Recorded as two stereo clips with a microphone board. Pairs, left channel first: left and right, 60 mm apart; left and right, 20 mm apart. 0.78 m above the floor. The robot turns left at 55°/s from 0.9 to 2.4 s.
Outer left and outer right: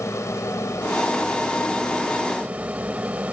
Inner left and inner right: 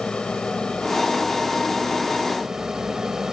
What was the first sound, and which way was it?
An aircraft, 60° left.